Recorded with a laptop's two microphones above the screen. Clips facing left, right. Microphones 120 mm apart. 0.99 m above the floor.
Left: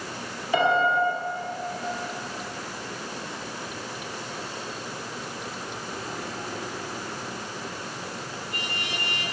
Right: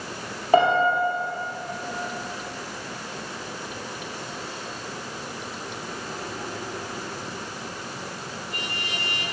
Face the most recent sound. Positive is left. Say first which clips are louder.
# right 3 dB
turn(degrees=-45)  # may be behind; listen again after turning